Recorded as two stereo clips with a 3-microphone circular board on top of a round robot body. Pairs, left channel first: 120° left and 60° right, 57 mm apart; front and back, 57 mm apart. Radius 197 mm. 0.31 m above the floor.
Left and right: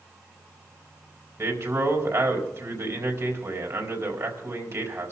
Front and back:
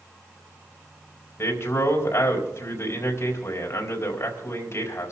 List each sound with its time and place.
1.4 s a man speaking: 35° right, 4.5 m